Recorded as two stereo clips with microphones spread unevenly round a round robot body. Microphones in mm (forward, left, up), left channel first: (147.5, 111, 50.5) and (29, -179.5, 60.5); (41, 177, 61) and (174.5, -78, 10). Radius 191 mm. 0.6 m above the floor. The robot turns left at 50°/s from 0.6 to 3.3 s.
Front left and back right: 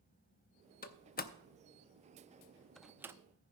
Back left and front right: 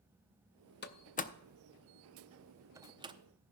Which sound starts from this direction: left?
A door slam, at 0.8 s.